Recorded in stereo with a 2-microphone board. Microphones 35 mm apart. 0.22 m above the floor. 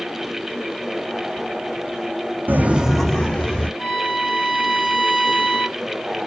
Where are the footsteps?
70° right (ahead or behind), 0.6 m; by 3.7 s 30° left (ahead or behind), 1.6 m.